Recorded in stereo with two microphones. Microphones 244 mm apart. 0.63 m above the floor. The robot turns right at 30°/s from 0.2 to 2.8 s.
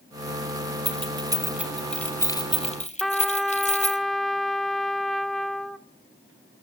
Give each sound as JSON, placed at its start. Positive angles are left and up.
{"t": 0.8, "sound": "keys jangling", "side_deg": -30, "distance_m": 2.0}
{"t": 3.0, "sound": "a trumpet", "side_deg": 0, "distance_m": 0.8}